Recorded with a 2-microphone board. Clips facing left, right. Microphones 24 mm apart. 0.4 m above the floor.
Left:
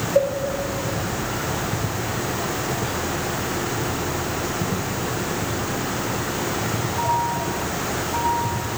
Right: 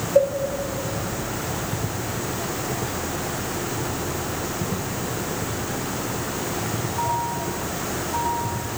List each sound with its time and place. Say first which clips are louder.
0.1 s a cowbell: right 2 dB; 15° right (ahead or behind), 1.1 m